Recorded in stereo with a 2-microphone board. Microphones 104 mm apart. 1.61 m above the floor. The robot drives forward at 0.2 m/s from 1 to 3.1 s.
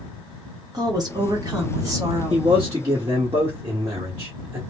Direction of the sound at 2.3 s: 50° right (ahead or behind).